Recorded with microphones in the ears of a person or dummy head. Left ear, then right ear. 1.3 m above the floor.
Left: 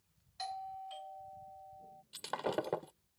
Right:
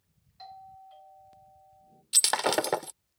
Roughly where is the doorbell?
Left.